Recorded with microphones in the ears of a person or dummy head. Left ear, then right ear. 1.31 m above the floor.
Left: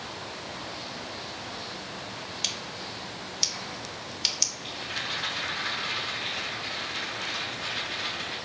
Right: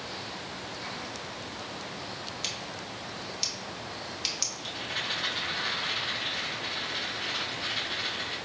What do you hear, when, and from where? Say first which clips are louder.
2.4 s scissors: left 5 dB; 10° left (ahead or behind), 0.5 m
4.6 s a rattle: even; 10° right (ahead or behind), 1.7 m